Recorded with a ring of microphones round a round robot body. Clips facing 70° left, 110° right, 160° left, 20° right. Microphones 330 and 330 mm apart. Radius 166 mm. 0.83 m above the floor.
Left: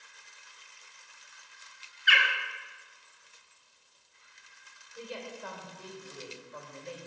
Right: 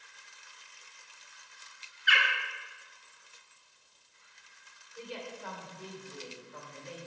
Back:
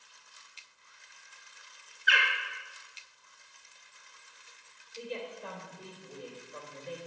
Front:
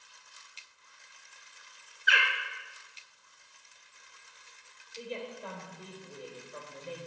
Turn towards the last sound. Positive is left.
turn(degrees=85)